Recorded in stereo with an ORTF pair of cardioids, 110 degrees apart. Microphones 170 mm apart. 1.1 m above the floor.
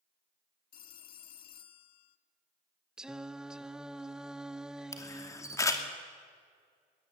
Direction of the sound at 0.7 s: 60° left.